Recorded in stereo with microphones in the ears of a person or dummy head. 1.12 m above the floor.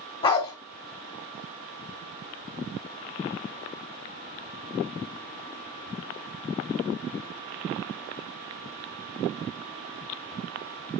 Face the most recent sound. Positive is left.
turn(degrees=30)  # may be behind; listen again after turning